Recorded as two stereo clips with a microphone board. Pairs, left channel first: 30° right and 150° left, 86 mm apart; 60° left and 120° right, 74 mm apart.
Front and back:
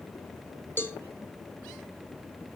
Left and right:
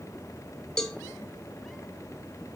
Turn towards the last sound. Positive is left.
turn(degrees=-10)